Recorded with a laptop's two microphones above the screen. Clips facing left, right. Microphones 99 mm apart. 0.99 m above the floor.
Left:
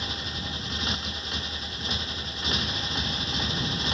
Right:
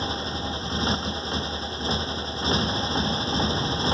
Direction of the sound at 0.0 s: 35° right (ahead or behind).